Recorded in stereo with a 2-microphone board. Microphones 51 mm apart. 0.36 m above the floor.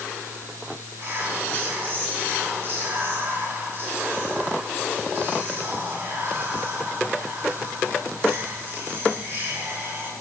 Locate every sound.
1.0 s whispering: 50° right (ahead or behind), 4 m